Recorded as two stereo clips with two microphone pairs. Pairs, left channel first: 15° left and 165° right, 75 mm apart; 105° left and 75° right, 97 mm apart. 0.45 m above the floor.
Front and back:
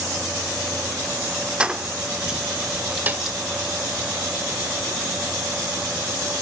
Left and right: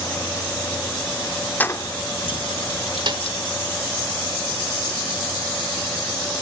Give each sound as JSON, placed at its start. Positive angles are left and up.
{"t": 1.6, "sound": "keys jangling", "azimuth_deg": 155, "distance_m": 0.6}
{"t": 3.1, "sound": "a snare drum", "azimuth_deg": -100, "distance_m": 1.0}